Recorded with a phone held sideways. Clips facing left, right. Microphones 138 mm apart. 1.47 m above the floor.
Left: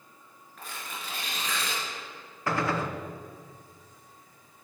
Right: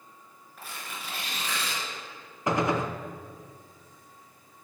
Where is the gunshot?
20° right (ahead or behind), 0.7 m.